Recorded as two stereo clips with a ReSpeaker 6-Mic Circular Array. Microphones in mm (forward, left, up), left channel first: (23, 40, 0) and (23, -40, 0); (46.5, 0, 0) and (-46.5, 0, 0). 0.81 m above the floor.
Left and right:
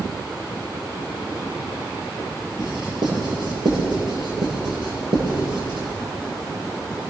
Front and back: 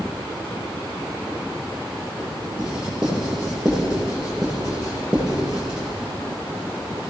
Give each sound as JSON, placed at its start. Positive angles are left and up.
{"t": 2.6, "sound": "writing", "azimuth_deg": -100, "distance_m": 8.5}